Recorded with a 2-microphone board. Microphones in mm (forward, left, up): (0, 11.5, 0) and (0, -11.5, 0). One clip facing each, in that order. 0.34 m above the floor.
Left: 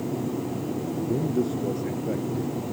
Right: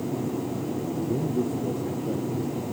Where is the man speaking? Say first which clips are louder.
Left 2 dB; 45° left (ahead or behind); by 2.6 s 60° left (ahead or behind).